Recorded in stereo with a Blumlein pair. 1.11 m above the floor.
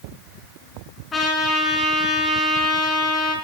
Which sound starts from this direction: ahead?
A trumpet, at 1.1 s.